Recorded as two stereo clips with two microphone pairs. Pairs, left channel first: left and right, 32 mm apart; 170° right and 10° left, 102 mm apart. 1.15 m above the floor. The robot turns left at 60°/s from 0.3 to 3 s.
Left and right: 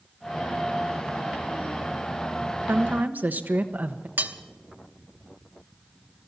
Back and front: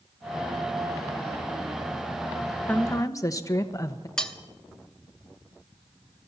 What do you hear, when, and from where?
2.7 s a woman speaking: 95° right, 1.1 m; by 4.1 s 115° right, 1.1 m
4.2 s cutlery clinking: 90° right, 0.9 m